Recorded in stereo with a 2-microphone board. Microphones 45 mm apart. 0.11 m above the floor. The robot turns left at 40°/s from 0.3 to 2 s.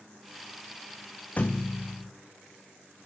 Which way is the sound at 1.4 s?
35° left (ahead or behind).